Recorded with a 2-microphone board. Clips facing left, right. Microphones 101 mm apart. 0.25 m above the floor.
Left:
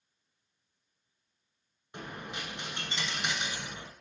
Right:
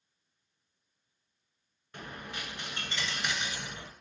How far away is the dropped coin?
About 0.6 m.